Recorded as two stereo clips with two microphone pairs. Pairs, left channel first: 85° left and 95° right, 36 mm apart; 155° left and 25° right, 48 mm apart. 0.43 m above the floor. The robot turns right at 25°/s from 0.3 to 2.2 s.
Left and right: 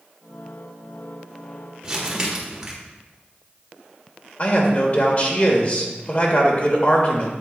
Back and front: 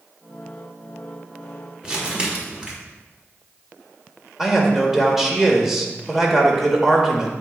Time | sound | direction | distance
1.8 | crumpling | 75° right | 1.5 m
4.4 | a man speaking | 55° left | 1.4 m